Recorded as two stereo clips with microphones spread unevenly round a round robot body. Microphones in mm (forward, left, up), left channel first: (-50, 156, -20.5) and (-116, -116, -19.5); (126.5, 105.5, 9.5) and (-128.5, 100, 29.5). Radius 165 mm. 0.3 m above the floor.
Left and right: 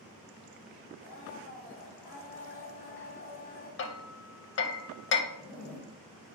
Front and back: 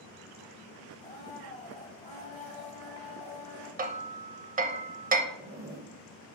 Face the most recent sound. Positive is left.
turn(degrees=150)